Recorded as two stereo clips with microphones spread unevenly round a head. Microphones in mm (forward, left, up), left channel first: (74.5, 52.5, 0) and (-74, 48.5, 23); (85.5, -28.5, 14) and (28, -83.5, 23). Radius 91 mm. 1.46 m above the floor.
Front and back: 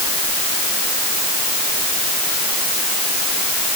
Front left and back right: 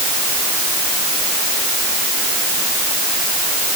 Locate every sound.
Only background noise.